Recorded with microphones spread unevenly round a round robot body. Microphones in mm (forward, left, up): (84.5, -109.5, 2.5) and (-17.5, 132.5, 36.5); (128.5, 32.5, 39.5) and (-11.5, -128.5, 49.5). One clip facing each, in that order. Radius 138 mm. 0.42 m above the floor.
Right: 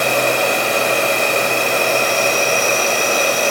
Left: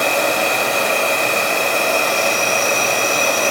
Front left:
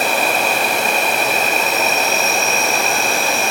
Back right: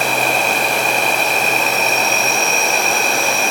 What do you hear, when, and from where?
0.0 s an insect: 35° right, 1.2 m